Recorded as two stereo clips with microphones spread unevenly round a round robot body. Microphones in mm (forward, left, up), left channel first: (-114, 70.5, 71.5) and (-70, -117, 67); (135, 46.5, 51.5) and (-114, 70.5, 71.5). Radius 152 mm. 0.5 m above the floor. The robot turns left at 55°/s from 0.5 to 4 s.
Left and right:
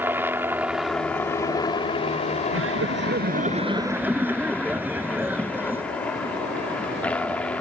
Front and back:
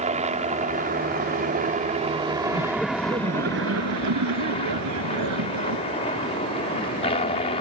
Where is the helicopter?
145° right; by 7.6 s 25° left.